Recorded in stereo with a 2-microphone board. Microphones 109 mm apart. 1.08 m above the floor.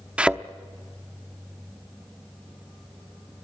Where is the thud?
10° right (ahead or behind), 0.7 m.